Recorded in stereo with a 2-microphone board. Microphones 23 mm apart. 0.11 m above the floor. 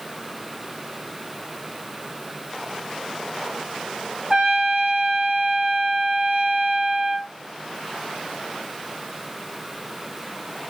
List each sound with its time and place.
4.3 s a trumpet: 35° right (ahead or behind), 2 m